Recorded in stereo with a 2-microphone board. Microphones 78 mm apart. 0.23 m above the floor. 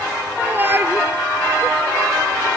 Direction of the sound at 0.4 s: 25° right (ahead or behind).